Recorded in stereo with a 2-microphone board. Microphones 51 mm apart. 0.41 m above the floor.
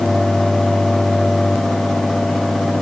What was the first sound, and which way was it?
Only background noise.